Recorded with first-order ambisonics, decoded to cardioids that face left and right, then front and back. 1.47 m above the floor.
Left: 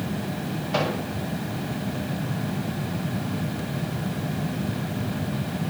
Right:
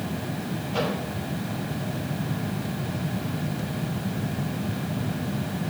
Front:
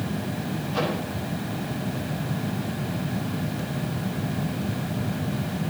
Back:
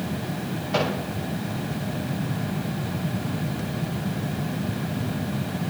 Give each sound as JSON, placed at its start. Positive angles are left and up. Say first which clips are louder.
{"t": 0.7, "sound": "a microwave", "louder": "left 2 dB, back 3 dB", "azimuth_deg": 140, "distance_m": 8.0}